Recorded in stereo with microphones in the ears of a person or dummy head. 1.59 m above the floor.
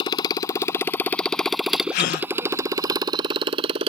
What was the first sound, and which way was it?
A motorcycle, 25° left (ahead or behind).